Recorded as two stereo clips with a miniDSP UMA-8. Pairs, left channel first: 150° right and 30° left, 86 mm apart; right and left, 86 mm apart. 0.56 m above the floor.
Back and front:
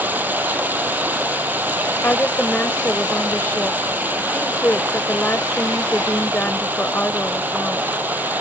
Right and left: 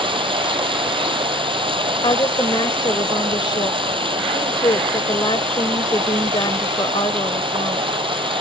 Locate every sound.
0.0 s running water: 100° left
2.0 s a woman speaking: 85° right